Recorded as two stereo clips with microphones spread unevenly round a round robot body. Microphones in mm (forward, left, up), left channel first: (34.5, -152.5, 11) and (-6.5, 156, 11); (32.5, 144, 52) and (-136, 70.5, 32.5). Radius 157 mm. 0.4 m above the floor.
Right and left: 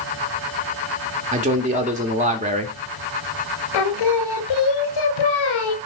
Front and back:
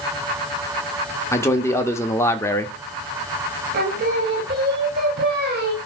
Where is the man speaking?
95° left, 0.8 m.